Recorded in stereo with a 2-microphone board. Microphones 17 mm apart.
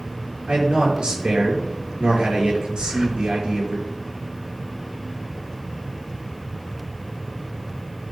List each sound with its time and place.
0.5 s a man speaking: 70° right (ahead or behind), 4.5 m
2.8 s breathing: 40° right (ahead or behind), 0.6 m